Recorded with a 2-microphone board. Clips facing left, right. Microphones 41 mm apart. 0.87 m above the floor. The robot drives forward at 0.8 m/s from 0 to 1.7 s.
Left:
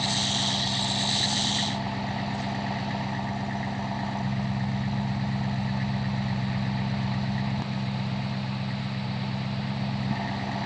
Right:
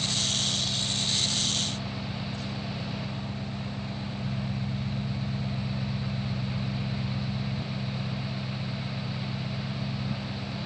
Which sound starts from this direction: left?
An engine running, at 0.0 s.